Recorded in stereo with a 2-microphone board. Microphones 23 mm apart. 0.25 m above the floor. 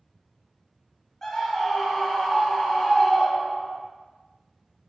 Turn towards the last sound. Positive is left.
turn(degrees=25)  # may be behind; listen again after turning